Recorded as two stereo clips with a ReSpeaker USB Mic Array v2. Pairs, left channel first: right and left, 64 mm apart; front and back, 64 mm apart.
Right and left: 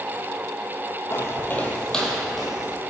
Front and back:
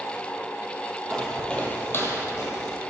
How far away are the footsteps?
About 0.8 m.